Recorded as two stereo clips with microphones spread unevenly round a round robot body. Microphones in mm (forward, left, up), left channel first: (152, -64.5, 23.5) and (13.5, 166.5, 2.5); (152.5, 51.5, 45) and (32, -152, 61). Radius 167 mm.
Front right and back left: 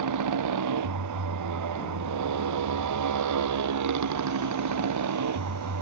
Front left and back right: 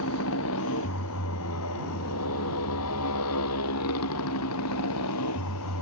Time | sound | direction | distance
0.0 | a motorcycle | 110° left | ?